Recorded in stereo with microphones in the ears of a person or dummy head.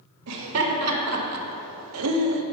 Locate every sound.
0.3 s laughter: 80° right, 1.7 m; by 2.4 s 60° right (ahead or behind), 0.9 m